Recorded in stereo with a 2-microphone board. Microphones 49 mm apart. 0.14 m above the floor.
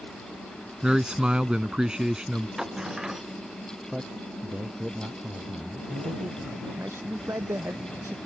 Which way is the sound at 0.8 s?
20° right (ahead or behind).